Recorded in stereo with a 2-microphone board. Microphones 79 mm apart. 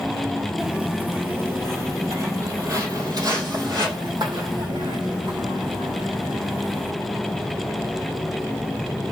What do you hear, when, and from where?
0.6 s footsteps: 10° right (ahead or behind), 1.7 m; by 6.9 s 75° right (ahead or behind), 5 m